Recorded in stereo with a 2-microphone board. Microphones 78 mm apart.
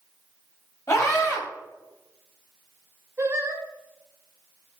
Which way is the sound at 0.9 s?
40° left (ahead or behind).